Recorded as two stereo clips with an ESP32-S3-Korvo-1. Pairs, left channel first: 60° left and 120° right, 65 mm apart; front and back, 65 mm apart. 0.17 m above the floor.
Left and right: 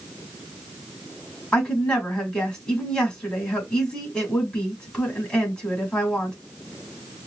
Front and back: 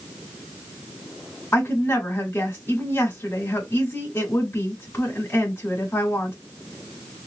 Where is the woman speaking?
10° right, 1.9 m.